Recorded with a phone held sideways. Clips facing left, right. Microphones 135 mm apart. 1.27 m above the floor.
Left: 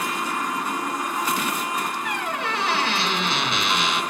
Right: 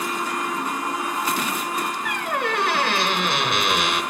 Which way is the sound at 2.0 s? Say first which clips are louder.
Right 2 dB; 55° right (ahead or behind).